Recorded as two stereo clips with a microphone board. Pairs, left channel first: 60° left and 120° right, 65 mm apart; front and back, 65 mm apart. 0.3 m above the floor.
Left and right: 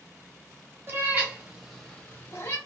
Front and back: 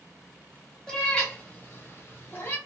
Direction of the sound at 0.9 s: 75° right.